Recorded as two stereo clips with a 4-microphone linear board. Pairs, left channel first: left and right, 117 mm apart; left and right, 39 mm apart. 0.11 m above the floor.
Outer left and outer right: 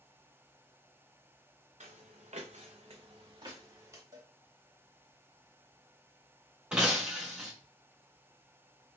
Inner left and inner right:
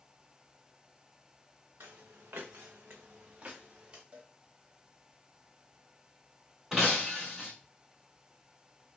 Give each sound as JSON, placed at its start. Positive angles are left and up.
{"t": 1.8, "sound": "footsteps", "side_deg": -75, "distance_m": 0.8}
{"t": 4.1, "sound": "a cowbell", "side_deg": -30, "distance_m": 0.8}
{"t": 6.7, "sound": "breaking glass", "side_deg": -10, "distance_m": 0.7}